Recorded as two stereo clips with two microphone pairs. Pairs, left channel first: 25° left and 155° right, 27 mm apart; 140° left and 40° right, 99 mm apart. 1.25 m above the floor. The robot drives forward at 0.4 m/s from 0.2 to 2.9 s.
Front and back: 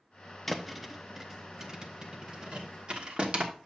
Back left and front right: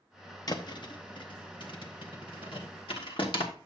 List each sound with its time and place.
0.5 s a thud: 115° left, 0.8 m; by 3.5 s 160° left, 1.4 m